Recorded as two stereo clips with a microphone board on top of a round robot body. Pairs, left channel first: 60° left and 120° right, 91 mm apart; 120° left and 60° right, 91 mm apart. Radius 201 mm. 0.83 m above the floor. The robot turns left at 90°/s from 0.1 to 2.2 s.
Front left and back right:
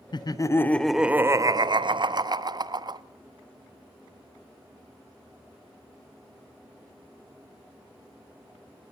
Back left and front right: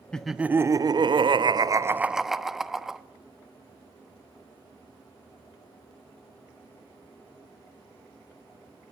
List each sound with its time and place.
0.1 s laughter: 40° left, 0.6 m; by 3.0 s 145° right, 0.6 m